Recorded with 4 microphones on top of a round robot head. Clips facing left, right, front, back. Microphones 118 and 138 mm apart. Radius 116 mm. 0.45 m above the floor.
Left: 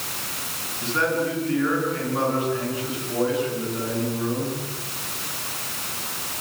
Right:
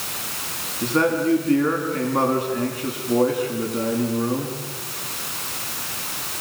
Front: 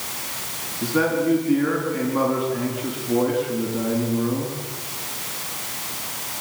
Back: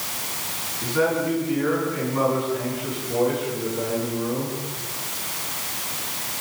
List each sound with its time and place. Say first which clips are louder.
0.8 s a man speaking: right 4 dB, front 2 dB; 50° right, 6.5 m